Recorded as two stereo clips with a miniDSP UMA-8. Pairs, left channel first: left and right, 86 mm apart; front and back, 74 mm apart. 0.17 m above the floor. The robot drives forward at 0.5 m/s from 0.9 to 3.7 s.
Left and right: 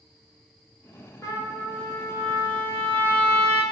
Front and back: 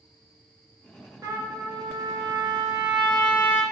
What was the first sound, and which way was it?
A trumpet, 140° left.